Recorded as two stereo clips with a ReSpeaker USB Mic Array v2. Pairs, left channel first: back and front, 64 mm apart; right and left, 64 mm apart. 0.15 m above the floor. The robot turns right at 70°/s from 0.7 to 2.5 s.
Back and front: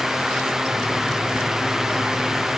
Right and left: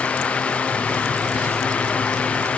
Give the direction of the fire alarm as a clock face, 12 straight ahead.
I don't hear a fire alarm.